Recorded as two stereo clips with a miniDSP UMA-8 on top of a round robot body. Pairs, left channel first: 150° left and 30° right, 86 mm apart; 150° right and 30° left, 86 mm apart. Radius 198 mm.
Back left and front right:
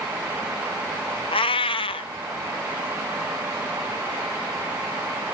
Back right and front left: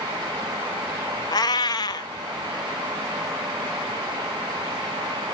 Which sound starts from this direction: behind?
A cat meowing, at 1.3 s.